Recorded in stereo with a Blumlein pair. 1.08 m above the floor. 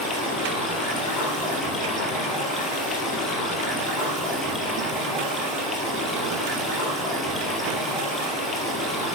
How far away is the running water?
About 3.5 m.